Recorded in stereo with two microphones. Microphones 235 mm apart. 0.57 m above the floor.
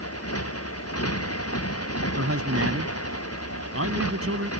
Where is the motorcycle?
85° left.